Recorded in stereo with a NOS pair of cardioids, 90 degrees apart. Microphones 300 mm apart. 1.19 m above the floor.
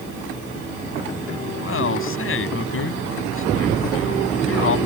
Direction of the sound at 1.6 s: 45° left.